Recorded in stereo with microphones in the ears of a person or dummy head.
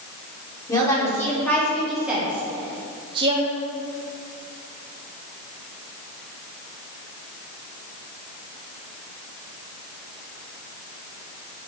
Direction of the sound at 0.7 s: 15° left (ahead or behind).